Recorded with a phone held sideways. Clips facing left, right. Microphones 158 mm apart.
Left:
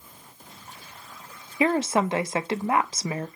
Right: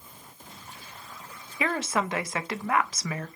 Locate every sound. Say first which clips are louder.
1.6 s a woman speaking: left 6 dB; 30° left (ahead or behind), 0.6 m